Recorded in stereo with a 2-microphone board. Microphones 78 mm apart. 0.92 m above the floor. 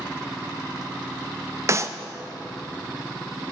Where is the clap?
35° right (ahead or behind), 0.5 m.